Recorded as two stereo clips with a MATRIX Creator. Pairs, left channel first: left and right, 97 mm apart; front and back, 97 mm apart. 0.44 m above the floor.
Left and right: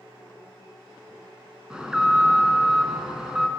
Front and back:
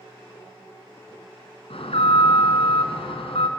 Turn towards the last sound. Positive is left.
turn(degrees=-5)